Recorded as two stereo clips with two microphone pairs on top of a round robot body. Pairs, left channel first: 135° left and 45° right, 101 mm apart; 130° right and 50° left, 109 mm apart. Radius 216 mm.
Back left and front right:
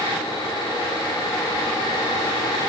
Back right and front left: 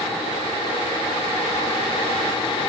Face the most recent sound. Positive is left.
No sound to turn to.